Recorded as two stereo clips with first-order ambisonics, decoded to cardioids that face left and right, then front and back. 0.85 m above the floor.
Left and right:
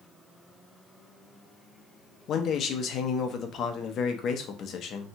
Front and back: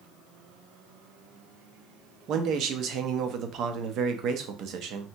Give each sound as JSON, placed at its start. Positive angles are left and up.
{"t": 2.3, "sound": "a man speaking", "azimuth_deg": 140, "distance_m": 0.5}